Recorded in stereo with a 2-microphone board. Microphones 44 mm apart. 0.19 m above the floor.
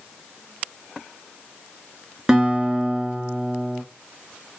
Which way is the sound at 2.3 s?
15° right (ahead or behind).